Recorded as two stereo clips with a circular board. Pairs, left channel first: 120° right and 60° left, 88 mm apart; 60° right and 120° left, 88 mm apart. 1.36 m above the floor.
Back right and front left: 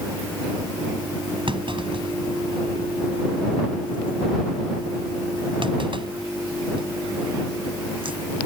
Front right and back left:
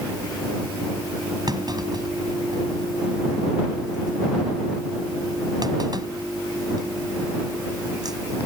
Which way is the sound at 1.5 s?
80° left.